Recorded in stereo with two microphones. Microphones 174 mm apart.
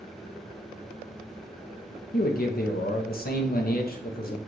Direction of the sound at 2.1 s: 60° left (ahead or behind).